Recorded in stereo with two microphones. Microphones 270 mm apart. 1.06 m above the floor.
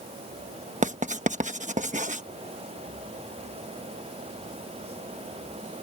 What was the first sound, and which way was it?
Writing, 25° right (ahead or behind).